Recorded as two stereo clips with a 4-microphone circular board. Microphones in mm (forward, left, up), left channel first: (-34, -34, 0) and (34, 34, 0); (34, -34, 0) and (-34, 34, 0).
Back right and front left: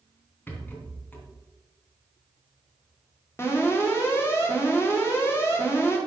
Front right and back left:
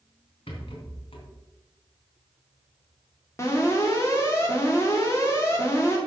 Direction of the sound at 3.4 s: 85° right.